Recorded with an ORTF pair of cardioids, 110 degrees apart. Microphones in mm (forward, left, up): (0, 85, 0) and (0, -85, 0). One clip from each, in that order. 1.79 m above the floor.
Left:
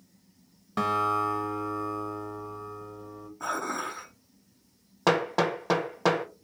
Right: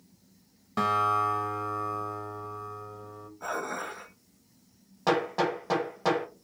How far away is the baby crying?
No baby crying in this recording.